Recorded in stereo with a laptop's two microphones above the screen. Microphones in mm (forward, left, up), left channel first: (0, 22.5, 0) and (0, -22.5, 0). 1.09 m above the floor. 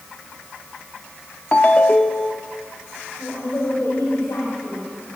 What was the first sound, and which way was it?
A ringtone, 30° left (ahead or behind).